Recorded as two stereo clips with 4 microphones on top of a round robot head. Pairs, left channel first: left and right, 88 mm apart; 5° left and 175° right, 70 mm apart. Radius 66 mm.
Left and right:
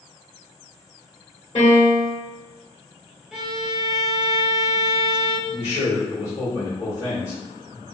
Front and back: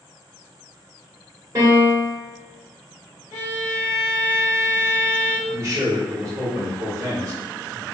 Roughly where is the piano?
Behind left.